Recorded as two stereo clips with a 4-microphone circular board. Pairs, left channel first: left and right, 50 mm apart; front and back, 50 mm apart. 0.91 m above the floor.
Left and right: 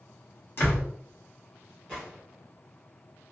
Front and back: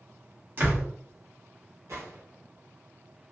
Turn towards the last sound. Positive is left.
turn(degrees=165)